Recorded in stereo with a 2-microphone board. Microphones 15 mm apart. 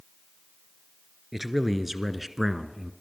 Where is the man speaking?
20° right (ahead or behind), 1.9 m.